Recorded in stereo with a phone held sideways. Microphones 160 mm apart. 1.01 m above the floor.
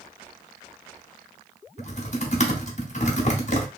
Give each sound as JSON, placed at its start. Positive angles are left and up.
{"t": 1.8, "sound": "typing on a keyboard", "side_deg": 50, "distance_m": 0.8}